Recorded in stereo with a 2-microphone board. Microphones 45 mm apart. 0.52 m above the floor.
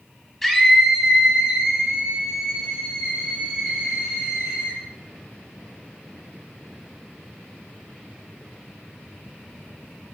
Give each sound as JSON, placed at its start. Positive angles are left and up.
{"t": 0.4, "sound": "a scream", "side_deg": 0, "distance_m": 1.0}